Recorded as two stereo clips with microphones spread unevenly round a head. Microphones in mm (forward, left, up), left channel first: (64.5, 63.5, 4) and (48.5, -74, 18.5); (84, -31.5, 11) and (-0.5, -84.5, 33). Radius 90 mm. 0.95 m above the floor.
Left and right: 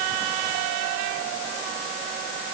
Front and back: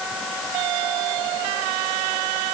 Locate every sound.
Only background noise.